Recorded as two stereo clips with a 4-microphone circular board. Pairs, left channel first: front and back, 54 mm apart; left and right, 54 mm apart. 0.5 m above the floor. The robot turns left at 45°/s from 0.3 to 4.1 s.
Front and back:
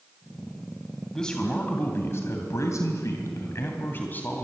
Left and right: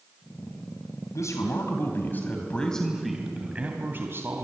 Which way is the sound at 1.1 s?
80° left.